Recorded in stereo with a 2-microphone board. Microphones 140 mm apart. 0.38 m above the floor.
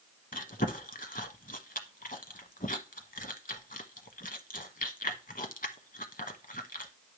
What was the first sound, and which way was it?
Chewing, 85° left.